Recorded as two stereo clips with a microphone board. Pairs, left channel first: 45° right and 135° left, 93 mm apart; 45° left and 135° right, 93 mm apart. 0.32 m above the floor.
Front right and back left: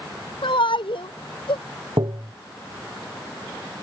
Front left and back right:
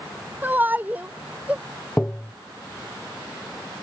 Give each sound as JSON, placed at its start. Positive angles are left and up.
{"t": 0.4, "sound": "a shout", "azimuth_deg": -65}
{"t": 2.0, "sound": "tapping", "azimuth_deg": 115}